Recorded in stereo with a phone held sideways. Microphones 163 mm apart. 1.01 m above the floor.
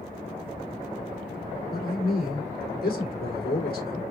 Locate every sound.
1.7 s a man speaking: 70° left (ahead or behind), 3.5 m